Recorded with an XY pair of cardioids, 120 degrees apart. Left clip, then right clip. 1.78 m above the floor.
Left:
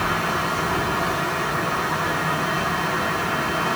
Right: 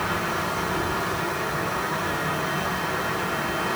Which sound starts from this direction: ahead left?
A fan, at 0.0 s.